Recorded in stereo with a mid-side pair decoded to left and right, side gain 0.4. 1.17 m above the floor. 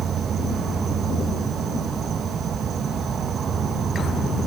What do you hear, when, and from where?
0.0 s an insect: 60° right